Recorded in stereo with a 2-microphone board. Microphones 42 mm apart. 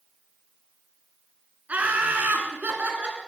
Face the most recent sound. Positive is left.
turn(degrees=-40)  # may be behind; listen again after turning